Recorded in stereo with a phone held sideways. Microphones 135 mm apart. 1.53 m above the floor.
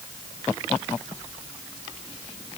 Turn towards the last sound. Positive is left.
No sound to turn to.